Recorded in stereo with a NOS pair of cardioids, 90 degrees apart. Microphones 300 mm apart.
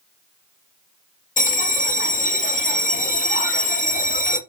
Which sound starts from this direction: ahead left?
A bell, at 1.4 s.